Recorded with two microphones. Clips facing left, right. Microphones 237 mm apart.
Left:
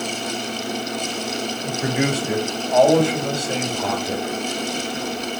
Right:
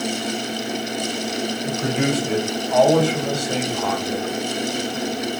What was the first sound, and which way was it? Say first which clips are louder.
A man speaking: even; 5° left (ahead or behind).